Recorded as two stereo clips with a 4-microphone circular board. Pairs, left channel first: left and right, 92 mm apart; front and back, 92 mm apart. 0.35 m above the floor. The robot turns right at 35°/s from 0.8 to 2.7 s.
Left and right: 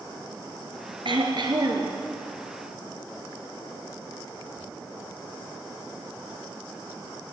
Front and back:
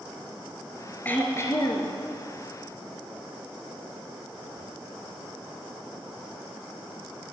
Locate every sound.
1.1 s throat clearing: 70° right, 1.3 m; by 1.9 s 40° right, 1.3 m